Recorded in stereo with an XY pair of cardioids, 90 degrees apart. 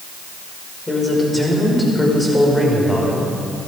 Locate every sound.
0.9 s a man speaking: 20° left, 5.5 m